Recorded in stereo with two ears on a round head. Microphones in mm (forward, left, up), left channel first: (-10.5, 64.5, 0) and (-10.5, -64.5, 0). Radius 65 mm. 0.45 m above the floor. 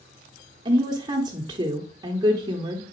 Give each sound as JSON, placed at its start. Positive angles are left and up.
{"t": 0.7, "sound": "a woman speaking", "side_deg": -30, "distance_m": 0.9}